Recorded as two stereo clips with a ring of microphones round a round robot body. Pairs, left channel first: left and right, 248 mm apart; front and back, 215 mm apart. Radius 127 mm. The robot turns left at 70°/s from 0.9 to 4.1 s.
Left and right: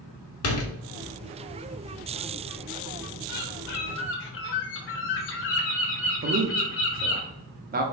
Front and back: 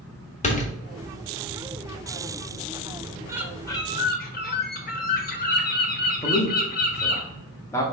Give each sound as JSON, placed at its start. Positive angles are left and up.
{"t": 0.4, "sound": "a door slam", "azimuth_deg": 60, "distance_m": 1.0}
{"t": 3.3, "sound": "a bird", "azimuth_deg": 105, "distance_m": 1.2}
{"t": 6.2, "sound": "a man speaking", "azimuth_deg": -70, "distance_m": 0.7}